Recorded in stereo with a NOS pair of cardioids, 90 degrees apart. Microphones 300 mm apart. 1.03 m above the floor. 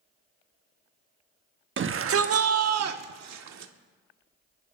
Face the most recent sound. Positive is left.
turn(degrees=-65)